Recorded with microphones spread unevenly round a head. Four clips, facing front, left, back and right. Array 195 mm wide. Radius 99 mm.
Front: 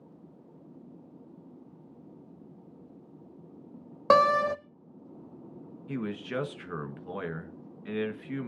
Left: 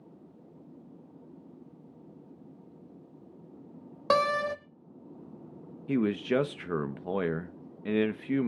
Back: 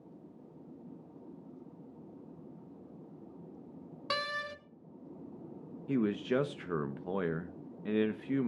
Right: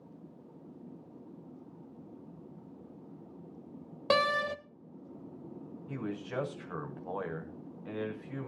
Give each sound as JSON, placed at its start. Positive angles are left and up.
{"t": 4.1, "sound": "a door slam", "azimuth_deg": 5, "distance_m": 0.7}
{"t": 5.9, "sound": "a man speaking", "azimuth_deg": 105, "distance_m": 1.3}